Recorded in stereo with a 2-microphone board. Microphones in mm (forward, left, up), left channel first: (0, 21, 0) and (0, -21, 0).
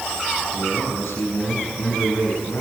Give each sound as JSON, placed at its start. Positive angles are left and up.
{"t": 0.5, "sound": "a man speaking", "side_deg": 65, "distance_m": 8.0}